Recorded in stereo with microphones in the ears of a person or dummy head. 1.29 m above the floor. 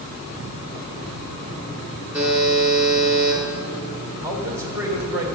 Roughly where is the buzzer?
Centre.